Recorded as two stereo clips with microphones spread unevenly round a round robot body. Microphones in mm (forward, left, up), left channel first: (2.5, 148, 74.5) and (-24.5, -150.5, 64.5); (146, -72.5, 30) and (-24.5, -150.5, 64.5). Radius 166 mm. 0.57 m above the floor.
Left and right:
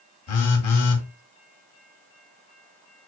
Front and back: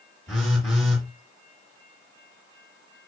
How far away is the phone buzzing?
About 1.7 m.